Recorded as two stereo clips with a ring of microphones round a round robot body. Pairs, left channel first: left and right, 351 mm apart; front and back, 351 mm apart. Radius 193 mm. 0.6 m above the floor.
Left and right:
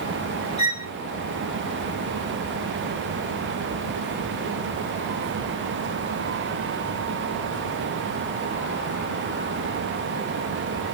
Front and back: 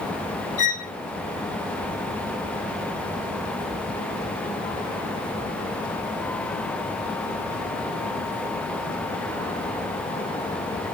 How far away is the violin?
About 1.3 m.